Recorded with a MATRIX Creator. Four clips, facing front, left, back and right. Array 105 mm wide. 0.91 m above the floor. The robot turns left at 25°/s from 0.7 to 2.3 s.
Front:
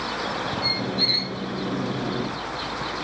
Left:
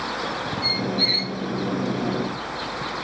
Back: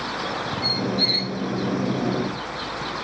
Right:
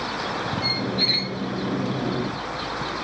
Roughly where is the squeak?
Right.